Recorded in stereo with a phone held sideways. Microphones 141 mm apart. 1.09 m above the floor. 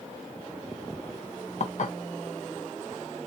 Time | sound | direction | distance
1.6 | dishes clattering | 55° left (ahead or behind) | 0.5 m